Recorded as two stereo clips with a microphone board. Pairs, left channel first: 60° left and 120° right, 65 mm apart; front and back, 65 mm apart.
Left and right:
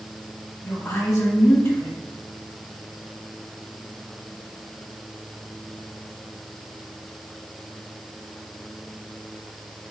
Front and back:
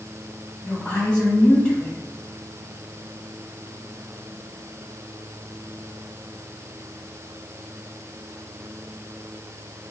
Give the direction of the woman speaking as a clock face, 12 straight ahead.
10 o'clock.